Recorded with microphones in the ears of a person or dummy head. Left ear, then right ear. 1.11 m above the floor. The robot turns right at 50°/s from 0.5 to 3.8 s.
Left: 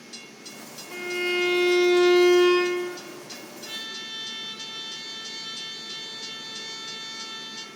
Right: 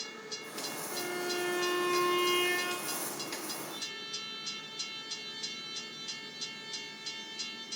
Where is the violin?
15° left, 1.0 m; by 3.0 s 120° left, 1.0 m.